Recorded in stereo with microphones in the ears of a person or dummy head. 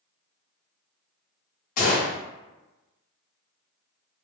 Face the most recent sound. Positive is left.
turn(degrees=50)  # may be behind; listen again after turning